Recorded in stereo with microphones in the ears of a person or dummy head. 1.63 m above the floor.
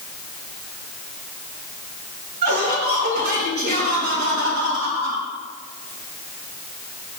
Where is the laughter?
55° right (ahead or behind), 2.5 m.